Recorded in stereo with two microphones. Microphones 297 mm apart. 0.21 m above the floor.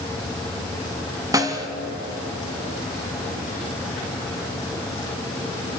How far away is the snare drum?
About 1.8 m.